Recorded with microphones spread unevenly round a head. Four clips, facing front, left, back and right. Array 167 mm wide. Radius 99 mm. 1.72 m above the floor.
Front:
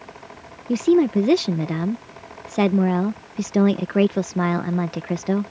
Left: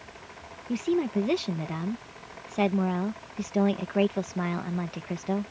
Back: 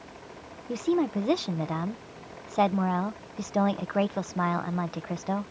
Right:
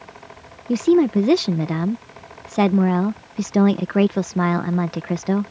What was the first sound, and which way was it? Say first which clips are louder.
A woman speaking: right 11 dB, front 9 dB; 80° right.